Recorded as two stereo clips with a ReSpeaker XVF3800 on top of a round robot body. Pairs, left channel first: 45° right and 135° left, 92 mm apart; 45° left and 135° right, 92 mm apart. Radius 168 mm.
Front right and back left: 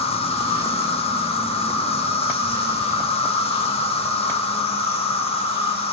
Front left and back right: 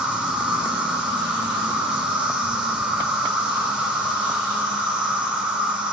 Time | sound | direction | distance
0.0 | an insect | 55° right | 1.5 m